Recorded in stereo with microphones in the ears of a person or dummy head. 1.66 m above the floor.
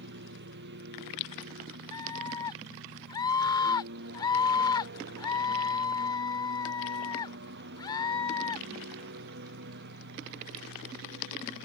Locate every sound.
0.0 s a lawn mower: 60° right (ahead or behind)
1.9 s a scream: 25° left (ahead or behind)